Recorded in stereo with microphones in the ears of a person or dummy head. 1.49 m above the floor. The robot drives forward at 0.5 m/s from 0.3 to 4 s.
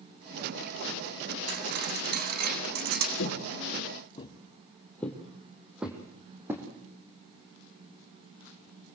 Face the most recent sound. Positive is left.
turn(degrees=-15)  # may be behind; listen again after turning